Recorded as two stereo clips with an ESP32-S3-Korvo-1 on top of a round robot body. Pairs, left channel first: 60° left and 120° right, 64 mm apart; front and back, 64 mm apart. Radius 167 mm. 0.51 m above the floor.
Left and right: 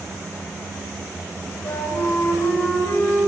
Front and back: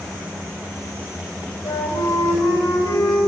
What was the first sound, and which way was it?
A flute, 5° left.